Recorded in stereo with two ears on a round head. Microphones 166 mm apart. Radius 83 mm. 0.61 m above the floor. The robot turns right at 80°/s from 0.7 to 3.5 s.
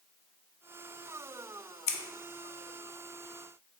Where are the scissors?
35° left (ahead or behind), 0.5 m; by 2.0 s 30° left (ahead or behind), 0.5 m.